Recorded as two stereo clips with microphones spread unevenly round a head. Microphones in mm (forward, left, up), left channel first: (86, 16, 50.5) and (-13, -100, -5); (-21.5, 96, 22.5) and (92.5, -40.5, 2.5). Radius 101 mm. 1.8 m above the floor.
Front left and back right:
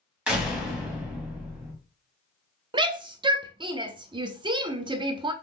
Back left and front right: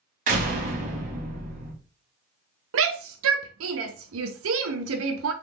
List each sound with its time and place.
0.3 s a door slam: 25° right, 1.2 m
2.7 s a shout: 60° right, 0.6 m